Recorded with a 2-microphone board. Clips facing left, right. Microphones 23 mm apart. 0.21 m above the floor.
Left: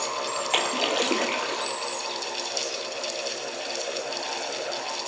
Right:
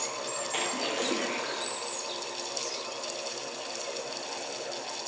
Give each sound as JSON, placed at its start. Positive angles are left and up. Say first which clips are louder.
{"t": 0.5, "sound": "a splash", "louder": "left 7 dB", "side_deg": 55, "distance_m": 1.2}